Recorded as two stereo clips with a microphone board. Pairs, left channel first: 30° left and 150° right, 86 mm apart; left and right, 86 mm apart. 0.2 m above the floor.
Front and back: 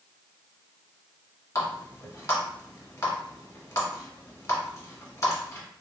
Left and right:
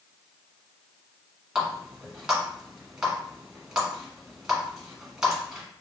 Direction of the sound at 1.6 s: 10° right.